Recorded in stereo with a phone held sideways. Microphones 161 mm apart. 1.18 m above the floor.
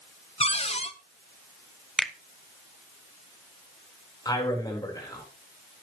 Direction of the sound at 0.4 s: 40° left (ahead or behind).